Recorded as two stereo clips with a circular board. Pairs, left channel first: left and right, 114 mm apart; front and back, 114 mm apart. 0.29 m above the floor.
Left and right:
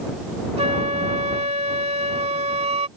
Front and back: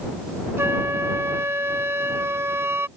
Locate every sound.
0.6 s a flute: 115° right